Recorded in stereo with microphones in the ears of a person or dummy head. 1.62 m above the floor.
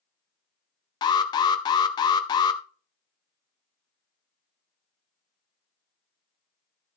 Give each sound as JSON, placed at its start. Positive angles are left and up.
{"t": 1.0, "sound": "an alarm", "side_deg": 20, "distance_m": 0.6}